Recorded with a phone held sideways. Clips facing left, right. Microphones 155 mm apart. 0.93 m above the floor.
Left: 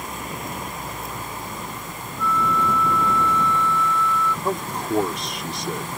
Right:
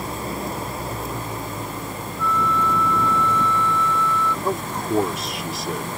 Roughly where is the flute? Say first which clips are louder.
Even; centre.